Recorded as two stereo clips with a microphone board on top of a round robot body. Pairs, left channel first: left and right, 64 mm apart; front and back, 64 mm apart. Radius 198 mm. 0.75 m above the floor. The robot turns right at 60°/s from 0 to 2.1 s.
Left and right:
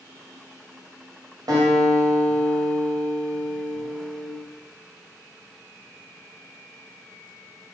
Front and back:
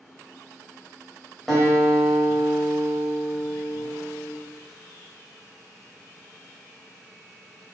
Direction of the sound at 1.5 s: 90° right.